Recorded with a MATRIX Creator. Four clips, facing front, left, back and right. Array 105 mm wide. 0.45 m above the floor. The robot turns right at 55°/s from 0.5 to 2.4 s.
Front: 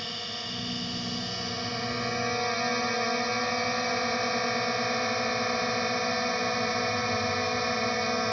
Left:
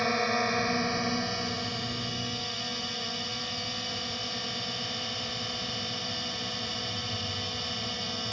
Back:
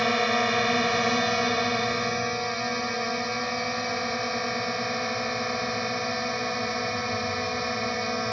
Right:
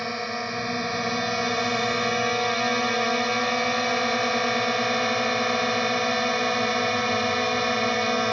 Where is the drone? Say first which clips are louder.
Left 2 dB, back 16 dB; 170° left; by 8.3 s 85° right.